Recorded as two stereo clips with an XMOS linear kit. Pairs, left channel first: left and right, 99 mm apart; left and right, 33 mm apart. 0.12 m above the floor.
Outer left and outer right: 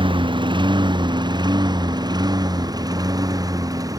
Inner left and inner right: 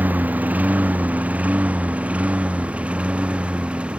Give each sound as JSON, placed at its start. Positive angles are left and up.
{"t": 0.0, "sound": "a lawn mower", "side_deg": -55}